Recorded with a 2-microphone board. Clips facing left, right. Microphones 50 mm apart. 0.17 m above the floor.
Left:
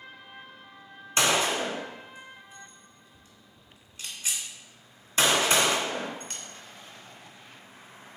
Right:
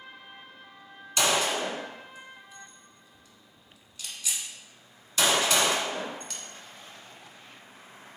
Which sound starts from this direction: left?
A gunshot, at 1.2 s.